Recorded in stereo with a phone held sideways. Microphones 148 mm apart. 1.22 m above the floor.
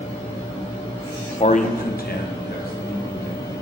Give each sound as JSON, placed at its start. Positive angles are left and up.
{"t": 1.4, "sound": "a man speaking", "side_deg": 40, "distance_m": 0.6}